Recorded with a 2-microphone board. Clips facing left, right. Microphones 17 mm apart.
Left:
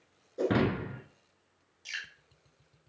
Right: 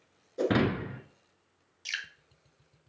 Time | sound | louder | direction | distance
0.4 | breaking glass | right 1 dB | 25° right (ahead or behind) | 1.0 m
1.9 | dripping | right 3 dB | 35° right (ahead or behind) | 0.9 m